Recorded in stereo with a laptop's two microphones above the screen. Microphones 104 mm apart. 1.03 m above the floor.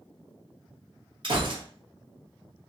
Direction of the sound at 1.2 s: 50° right (ahead or behind).